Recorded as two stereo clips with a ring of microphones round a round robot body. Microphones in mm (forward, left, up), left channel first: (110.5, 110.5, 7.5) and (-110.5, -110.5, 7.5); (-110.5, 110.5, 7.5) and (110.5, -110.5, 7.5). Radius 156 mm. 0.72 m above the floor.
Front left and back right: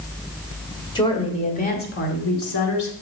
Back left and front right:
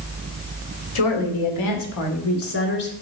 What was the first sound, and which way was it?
A woman speaking, 120° left.